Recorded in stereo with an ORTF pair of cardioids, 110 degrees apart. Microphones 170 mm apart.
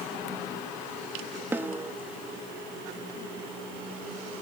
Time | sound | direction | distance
1.5 | a snare drum | 10° right | 1.3 m